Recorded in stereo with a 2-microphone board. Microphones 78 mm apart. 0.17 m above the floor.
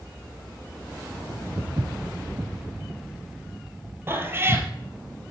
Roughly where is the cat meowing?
Right.